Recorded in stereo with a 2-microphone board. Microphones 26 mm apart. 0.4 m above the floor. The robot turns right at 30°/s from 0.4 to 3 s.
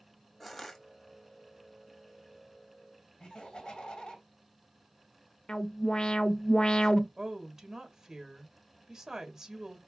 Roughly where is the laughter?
Left.